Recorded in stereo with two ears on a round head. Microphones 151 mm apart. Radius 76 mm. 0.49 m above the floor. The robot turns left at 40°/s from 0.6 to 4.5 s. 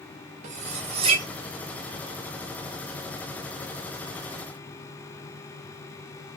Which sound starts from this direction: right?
Cutlery clinking, at 0.4 s.